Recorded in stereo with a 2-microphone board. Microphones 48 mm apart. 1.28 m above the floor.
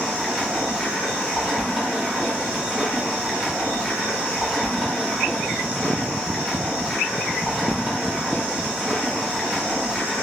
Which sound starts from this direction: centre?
Running water, at 0.0 s.